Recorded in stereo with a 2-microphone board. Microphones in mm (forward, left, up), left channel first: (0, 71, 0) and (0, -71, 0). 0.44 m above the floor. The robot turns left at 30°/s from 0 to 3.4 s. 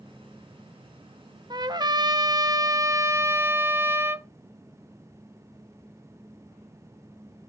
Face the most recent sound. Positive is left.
turn(degrees=-145)